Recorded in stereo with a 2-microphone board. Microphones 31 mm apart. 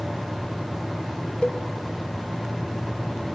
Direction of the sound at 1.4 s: 30° left (ahead or behind).